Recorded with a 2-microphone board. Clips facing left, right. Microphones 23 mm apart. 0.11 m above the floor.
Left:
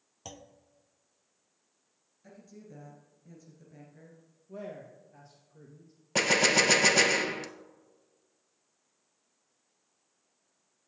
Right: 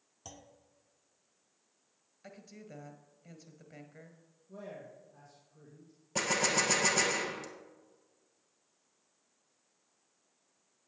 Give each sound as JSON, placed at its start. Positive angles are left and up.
{"t": 0.2, "sound": "a clunk", "side_deg": 25, "distance_m": 0.9}
{"t": 2.2, "sound": "a woman speaking", "side_deg": -40, "distance_m": 2.0}
{"t": 4.5, "sound": "a man speaking", "side_deg": 45, "distance_m": 2.0}
{"t": 6.2, "sound": "a gunshot", "side_deg": 40, "distance_m": 0.7}